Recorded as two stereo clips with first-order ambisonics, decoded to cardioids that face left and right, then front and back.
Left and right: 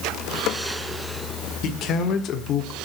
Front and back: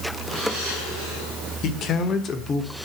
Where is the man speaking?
45° left, 1.7 m; by 2.8 s 70° left, 1.2 m.